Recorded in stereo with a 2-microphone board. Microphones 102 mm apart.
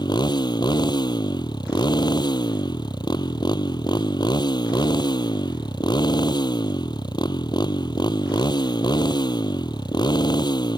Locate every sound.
0.0 s a motorcycle: 45° left (ahead or behind)